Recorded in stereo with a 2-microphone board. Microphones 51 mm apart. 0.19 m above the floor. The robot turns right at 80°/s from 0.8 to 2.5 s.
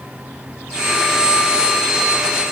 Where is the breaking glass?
No breaking glass in this recording.